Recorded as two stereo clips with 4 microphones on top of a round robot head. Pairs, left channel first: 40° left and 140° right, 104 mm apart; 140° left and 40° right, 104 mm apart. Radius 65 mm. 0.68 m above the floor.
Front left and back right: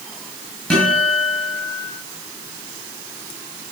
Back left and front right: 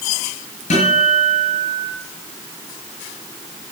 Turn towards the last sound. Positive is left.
turn(degrees=120)